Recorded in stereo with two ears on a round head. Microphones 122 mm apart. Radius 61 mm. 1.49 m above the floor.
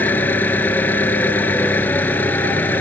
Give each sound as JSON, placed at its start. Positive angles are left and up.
{"t": 0.0, "sound": "an engine running", "side_deg": 15}